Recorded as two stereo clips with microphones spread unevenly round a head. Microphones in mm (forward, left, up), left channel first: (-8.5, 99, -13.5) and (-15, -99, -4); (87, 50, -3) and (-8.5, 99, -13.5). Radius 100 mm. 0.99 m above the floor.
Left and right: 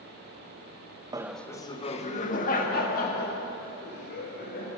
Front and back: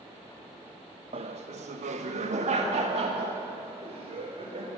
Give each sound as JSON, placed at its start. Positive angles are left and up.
{"t": 1.1, "sound": "laughter", "azimuth_deg": -165, "distance_m": 0.5}